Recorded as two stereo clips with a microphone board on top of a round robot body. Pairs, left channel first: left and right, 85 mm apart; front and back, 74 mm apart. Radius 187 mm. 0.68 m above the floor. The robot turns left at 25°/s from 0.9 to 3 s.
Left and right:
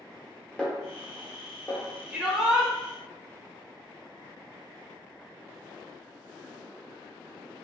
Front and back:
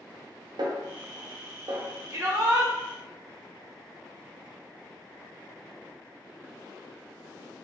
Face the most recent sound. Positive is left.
turn(degrees=180)